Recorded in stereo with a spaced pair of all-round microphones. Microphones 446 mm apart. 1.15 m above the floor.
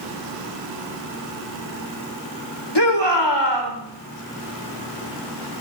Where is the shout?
65° left (ahead or behind), 4 m.